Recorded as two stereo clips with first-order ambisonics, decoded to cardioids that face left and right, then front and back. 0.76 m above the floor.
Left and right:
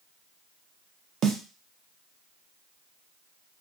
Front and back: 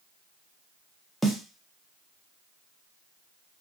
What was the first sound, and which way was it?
A snare drum, 100° right.